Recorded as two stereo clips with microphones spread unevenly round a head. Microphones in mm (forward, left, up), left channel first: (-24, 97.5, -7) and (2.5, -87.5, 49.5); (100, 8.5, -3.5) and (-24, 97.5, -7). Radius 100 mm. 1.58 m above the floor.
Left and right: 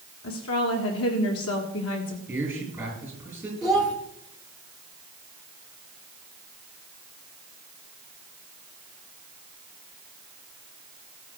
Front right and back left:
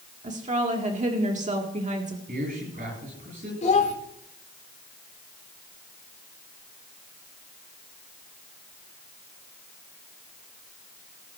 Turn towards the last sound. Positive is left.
turn(degrees=5)